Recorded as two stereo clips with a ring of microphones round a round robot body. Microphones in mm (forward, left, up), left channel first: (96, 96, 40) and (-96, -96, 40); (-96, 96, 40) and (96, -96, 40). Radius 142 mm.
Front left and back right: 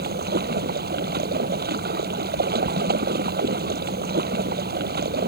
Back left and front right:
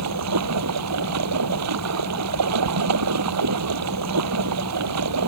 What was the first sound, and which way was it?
Running water, 80° right.